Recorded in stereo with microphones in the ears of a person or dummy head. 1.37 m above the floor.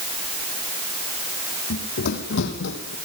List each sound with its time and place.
1.7 s running footsteps: 60° left (ahead or behind), 4.5 m; by 3.0 s 70° left (ahead or behind), 4 m